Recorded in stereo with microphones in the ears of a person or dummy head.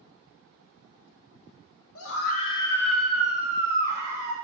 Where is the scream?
65° left (ahead or behind), 0.6 m; by 4.3 s 25° right (ahead or behind), 2 m.